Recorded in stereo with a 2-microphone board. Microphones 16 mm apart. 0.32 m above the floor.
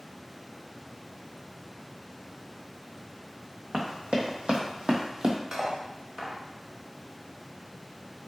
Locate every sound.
3.7 s running footsteps: 70° right (ahead or behind), 1.1 m; by 5.4 s 40° right (ahead or behind), 0.7 m
5.5 s cutlery clinking: 40° right (ahead or behind), 0.7 m